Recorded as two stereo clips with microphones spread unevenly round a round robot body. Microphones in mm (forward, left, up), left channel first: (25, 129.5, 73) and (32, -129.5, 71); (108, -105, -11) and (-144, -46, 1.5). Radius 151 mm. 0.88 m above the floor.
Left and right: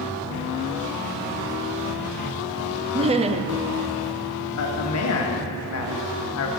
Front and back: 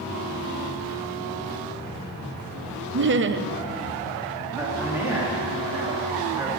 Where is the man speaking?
85° left, 1.6 m.